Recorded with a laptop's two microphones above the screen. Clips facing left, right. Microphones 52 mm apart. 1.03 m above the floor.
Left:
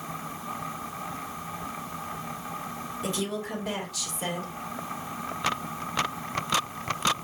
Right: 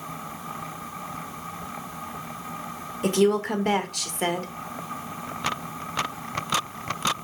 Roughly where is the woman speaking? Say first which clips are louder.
Right 11 dB; right.